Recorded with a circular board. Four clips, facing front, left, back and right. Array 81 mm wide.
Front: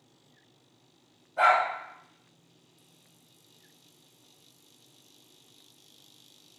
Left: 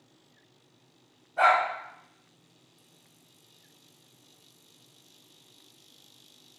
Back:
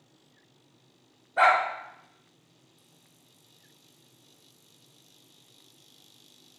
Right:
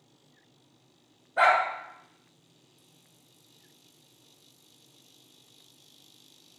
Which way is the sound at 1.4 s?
135° right.